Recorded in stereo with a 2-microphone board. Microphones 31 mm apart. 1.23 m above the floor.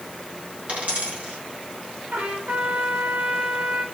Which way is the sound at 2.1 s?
85° right.